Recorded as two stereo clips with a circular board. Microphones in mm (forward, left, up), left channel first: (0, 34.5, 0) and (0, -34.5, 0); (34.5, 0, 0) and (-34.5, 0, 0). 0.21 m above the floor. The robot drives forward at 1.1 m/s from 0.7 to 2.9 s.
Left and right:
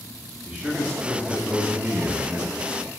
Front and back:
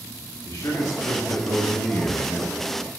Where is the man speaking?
20° right, 2.5 m; by 2.9 s 100° right, 1.5 m.